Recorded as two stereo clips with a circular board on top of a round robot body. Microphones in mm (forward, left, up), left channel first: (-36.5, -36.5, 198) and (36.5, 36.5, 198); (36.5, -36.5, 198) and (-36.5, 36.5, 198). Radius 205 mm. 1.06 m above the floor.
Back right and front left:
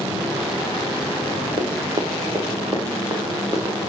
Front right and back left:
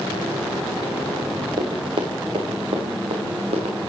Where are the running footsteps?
90° left, 3 m; by 3.8 s 110° left, 5.5 m.